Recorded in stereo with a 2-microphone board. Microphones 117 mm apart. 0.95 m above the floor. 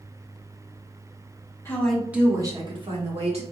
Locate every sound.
1.6 s a woman speaking: 20° left (ahead or behind), 1.0 m; by 3.4 s 60° right (ahead or behind), 1.7 m